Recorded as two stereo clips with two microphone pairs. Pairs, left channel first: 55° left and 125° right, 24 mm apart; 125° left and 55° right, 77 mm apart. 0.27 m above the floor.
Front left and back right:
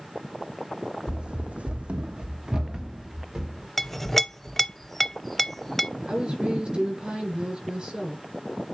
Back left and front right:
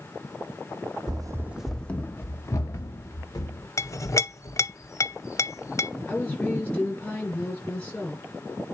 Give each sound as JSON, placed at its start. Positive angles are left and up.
{"t": 1.1, "sound": "running footsteps", "azimuth_deg": -75, "distance_m": 0.7}
{"t": 3.8, "sound": "a clink", "azimuth_deg": 130, "distance_m": 0.6}
{"t": 6.1, "sound": "a woman speaking", "azimuth_deg": -165, "distance_m": 5.0}